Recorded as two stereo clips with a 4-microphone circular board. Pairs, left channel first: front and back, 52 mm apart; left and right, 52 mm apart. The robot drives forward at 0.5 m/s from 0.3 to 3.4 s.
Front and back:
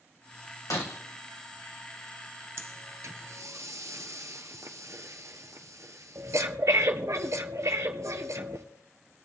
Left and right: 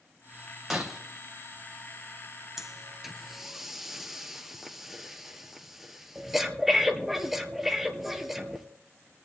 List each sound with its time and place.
0.7 s breaking glass: straight ahead, 2 m
2.6 s breathing: 175° right, 0.8 m